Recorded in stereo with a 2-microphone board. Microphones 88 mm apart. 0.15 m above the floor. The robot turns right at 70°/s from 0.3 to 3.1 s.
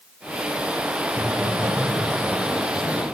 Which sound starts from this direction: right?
Laughter, at 1.1 s.